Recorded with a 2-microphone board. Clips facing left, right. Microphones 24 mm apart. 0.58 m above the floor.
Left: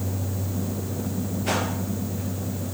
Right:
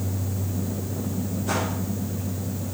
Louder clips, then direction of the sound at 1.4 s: Left 1 dB; 80° left.